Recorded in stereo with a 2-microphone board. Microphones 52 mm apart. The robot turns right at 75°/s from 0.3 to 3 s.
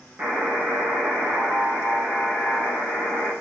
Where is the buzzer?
145° right, 1.3 m; by 3.3 s 55° left, 1.3 m.